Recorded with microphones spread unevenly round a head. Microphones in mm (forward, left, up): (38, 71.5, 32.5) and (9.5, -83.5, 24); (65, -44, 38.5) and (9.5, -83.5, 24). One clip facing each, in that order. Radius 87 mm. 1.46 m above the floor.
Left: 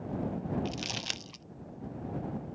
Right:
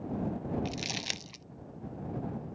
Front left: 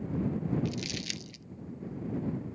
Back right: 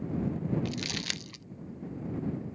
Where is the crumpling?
Straight behind.